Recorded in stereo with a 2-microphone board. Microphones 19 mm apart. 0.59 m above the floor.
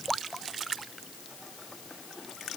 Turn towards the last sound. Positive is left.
No sound to turn to.